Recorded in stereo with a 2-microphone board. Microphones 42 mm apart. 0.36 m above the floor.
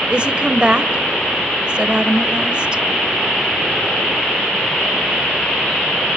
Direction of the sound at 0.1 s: 25° right (ahead or behind).